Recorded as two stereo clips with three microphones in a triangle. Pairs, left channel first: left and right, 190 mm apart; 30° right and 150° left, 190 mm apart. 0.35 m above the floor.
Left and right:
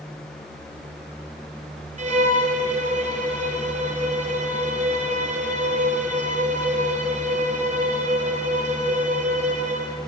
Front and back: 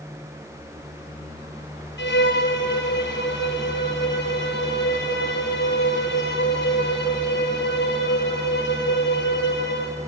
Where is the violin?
35° right, 1.7 m.